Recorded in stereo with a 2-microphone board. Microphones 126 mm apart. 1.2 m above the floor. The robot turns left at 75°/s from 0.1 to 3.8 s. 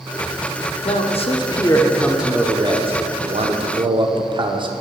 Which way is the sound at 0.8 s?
95° left.